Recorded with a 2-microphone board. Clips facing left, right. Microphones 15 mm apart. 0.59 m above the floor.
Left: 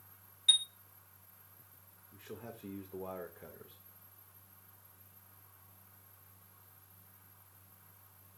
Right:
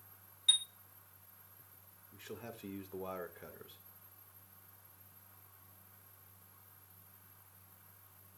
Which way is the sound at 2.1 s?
40° right (ahead or behind).